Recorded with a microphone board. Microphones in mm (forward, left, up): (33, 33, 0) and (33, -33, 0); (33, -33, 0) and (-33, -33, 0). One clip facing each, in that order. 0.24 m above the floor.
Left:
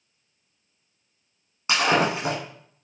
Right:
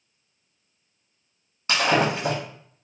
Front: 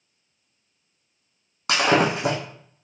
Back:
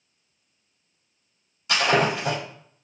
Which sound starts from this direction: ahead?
Breaking glass, at 1.7 s.